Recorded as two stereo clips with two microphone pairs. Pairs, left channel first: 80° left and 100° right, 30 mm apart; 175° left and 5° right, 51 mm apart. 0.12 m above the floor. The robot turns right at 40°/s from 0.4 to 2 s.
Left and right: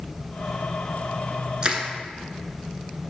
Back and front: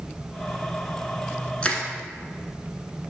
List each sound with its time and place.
1.6 s crushing: 125° right, 1.0 m; by 1.8 s 120° right, 1.0 m